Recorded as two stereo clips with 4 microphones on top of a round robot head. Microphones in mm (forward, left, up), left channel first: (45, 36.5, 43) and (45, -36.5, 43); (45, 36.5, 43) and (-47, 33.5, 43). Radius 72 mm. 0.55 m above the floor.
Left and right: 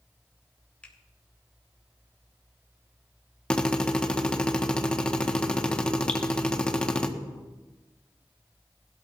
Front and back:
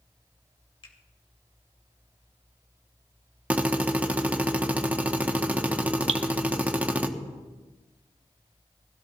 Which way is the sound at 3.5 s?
140° left.